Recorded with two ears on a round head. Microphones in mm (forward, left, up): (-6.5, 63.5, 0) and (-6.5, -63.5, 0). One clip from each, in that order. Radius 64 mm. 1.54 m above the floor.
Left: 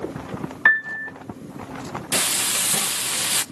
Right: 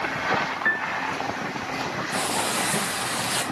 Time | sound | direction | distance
0.7 | a piano | 40° left (ahead or behind) | 0.9 m
2.1 | frying | 60° left (ahead or behind) | 1.0 m